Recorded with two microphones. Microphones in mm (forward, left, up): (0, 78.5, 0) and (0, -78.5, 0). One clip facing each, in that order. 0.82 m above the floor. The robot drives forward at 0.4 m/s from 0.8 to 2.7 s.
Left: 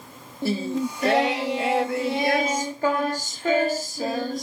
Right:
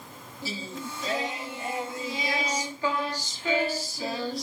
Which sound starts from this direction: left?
Singing, at 0.4 s.